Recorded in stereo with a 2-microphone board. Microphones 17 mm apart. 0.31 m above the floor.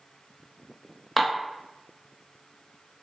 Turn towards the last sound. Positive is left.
turn(degrees=5)  # may be behind; listen again after turning